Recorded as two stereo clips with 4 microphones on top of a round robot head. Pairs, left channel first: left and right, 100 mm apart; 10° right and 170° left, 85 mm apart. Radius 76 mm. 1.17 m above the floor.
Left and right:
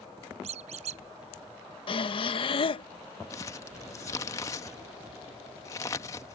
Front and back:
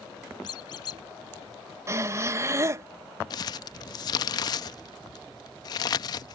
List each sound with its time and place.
0.4 s a squeak: 65° right
1.9 s breathing: 115° left
3.3 s crumpling: 20° left